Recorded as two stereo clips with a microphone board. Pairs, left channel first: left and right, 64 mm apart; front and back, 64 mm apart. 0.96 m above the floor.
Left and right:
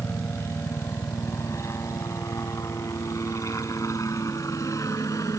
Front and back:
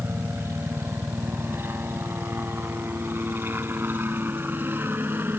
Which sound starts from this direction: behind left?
A helicopter, at 0.0 s.